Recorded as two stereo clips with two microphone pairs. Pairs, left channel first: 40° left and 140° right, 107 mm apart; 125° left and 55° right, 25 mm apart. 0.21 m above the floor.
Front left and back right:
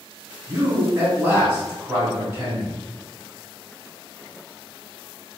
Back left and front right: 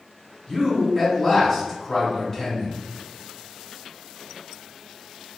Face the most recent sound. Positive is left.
turn(degrees=180)